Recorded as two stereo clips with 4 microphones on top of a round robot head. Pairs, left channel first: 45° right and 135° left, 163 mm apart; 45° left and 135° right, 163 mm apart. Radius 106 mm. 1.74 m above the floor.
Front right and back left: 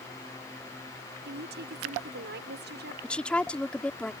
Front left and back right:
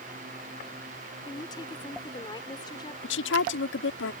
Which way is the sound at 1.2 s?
110° left.